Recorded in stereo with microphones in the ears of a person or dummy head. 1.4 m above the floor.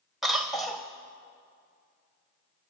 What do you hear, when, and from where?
0.2 s a cough: centre (ahead or behind), 1.0 m